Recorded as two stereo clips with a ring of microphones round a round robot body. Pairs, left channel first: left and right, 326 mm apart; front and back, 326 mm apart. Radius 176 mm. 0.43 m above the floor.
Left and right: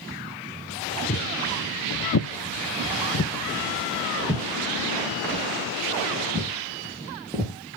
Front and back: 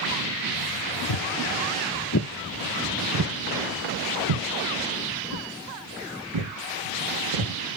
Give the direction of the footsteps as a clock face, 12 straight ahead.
11 o'clock.